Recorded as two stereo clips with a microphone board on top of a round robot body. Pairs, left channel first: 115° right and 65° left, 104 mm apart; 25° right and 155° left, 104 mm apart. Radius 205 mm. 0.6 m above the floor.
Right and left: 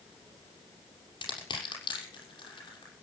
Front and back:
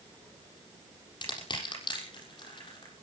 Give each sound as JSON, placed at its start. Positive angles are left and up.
{"t": 1.2, "sound": "crushing", "azimuth_deg": -65, "distance_m": 6.5}